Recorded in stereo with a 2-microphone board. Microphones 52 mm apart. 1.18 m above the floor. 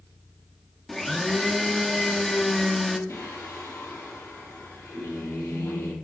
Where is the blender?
5° left (ahead or behind), 1.2 m.